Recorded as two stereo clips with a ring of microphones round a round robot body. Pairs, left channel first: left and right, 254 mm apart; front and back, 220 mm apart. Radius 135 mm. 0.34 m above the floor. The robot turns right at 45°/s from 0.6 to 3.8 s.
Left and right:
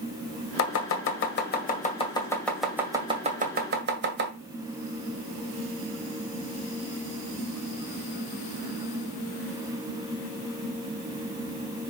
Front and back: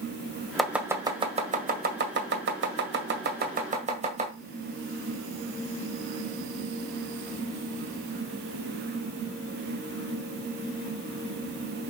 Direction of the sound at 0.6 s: 90° left.